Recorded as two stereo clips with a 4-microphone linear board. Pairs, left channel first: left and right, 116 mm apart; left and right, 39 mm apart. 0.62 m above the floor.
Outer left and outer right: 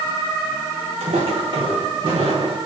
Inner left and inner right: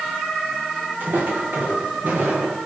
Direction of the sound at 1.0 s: 60° right (ahead or behind).